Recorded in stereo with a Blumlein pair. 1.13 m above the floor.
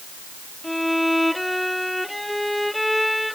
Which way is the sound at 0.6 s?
5° left.